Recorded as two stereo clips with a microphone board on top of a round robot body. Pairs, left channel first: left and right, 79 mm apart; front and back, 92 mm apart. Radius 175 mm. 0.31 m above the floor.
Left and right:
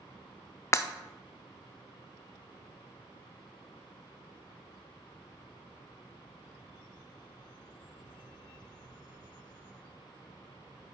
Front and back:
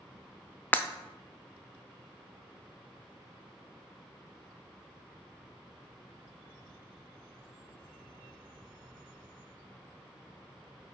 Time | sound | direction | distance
0.7 | breaking glass | 60° left | 0.6 m